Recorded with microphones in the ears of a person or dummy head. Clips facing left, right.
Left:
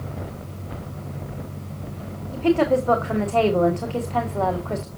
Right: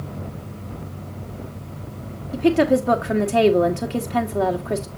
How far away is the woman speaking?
About 1.4 m.